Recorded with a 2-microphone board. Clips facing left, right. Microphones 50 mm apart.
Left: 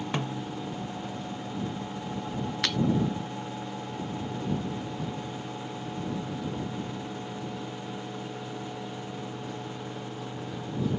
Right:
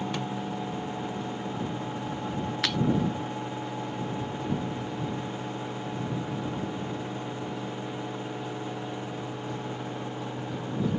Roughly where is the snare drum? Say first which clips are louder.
Even; left.